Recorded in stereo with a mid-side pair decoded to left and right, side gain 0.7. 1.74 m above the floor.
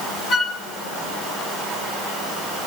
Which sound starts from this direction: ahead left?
A flute, at 0.3 s.